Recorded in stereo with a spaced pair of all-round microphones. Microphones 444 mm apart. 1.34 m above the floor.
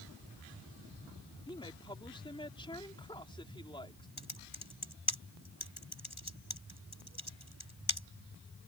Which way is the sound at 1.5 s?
10° left (ahead or behind).